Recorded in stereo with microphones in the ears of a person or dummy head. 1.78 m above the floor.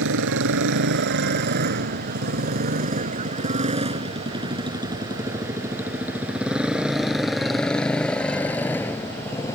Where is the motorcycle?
65° right (ahead or behind); by 9.6 s 15° left (ahead or behind).